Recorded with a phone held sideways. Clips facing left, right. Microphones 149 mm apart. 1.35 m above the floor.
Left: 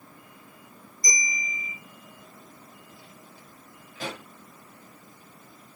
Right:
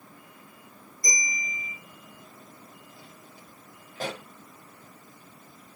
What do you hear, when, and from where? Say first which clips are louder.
1.0 s a bell: left 1 dB; 60° right (ahead or behind), 4.5 m
4.0 s a pop: right 2 dB; 50° right (ahead or behind), 5.5 m